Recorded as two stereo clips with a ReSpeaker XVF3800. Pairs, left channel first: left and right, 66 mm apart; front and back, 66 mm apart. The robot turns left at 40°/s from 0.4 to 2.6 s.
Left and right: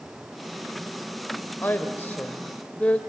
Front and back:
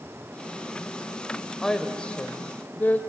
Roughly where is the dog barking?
I don't hear a dog barking.